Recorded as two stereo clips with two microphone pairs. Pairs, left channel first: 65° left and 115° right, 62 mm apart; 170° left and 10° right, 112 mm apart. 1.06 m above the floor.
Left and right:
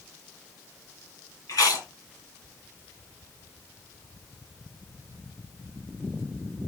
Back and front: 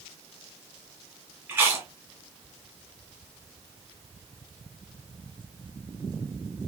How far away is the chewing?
About 2.5 m.